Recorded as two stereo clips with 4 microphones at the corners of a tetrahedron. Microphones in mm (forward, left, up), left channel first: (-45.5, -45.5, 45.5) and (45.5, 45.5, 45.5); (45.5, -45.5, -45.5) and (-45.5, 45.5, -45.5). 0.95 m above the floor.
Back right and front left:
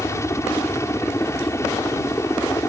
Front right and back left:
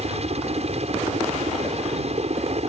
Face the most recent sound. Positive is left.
turn(degrees=160)